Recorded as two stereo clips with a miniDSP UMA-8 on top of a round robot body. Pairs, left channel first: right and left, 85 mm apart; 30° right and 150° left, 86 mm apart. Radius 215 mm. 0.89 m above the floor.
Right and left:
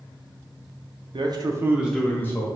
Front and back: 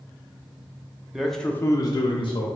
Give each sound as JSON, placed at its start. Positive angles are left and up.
{"t": 1.1, "sound": "a man speaking", "azimuth_deg": 65, "distance_m": 0.6}